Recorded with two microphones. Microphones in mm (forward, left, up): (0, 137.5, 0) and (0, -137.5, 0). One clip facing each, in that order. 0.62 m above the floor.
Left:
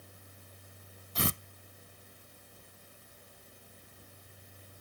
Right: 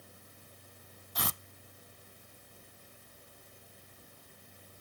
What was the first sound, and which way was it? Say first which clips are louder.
Tearing paper: left 7 dB; 35° left (ahead or behind).